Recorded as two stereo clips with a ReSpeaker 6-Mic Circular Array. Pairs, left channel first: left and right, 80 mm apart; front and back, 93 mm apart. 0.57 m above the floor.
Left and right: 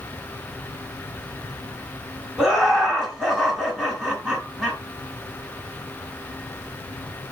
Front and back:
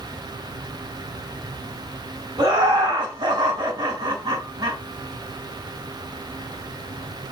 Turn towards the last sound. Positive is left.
turn(degrees=-170)